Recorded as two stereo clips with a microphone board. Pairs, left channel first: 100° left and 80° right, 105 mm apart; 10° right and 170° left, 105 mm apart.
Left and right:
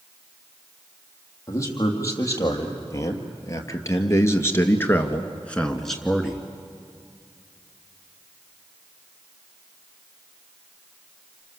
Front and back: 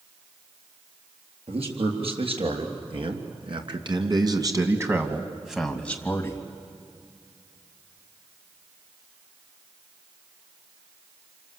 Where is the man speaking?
155° left, 4.5 m; by 6.5 s 5° right, 1.8 m.